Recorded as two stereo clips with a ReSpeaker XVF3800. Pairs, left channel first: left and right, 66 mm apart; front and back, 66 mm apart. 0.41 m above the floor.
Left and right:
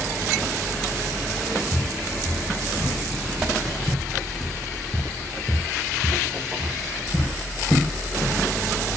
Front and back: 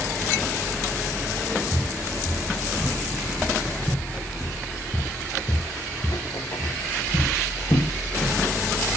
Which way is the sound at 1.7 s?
90° right.